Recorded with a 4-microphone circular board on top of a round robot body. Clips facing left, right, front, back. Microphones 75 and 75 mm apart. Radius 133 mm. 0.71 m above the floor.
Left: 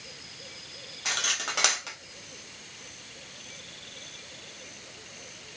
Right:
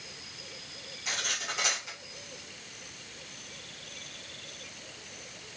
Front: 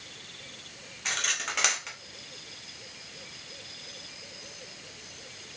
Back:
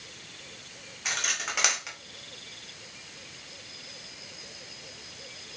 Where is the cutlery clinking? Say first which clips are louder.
Left 3 dB, even; 95° left, 0.9 m.